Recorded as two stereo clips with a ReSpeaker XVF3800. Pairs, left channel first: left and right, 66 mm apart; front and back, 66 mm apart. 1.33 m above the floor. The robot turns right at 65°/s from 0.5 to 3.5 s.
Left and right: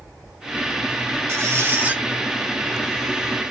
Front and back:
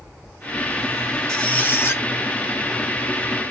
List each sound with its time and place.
1.3 s a squeak: 75° right, 1.1 m; by 2.0 s 25° right, 1.1 m